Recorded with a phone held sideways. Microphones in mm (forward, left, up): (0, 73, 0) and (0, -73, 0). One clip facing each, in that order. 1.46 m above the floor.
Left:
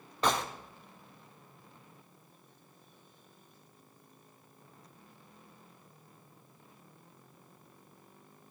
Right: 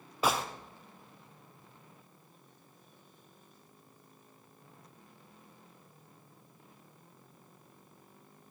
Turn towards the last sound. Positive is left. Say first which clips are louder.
# even
turn(degrees=-10)  # may be behind; listen again after turning